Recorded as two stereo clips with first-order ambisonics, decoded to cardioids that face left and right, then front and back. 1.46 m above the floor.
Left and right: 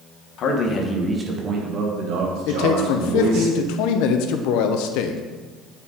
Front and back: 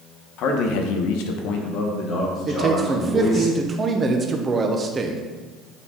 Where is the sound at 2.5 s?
110° left, 0.7 m.